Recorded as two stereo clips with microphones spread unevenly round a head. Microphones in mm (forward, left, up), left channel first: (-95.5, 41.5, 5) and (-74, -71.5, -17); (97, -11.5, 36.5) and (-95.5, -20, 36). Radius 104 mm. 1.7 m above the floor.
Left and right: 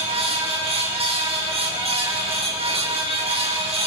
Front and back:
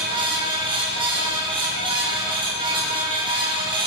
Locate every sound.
0.0 s a fan: 110° right, 9 m